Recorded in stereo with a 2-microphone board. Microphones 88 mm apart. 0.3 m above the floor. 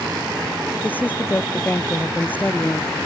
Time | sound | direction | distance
0.8 | a woman speaking | 20° left (ahead or behind) | ?